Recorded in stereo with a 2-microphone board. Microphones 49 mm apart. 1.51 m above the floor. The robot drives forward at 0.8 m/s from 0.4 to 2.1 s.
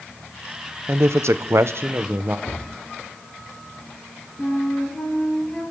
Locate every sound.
0.9 s a man speaking: 60° right (ahead or behind), 0.7 m; by 2.4 s 45° right (ahead or behind), 0.9 m
2.5 s a cupboard door: 70° left (ahead or behind), 4.5 m
4.4 s a flute: 10° left (ahead or behind), 6.5 m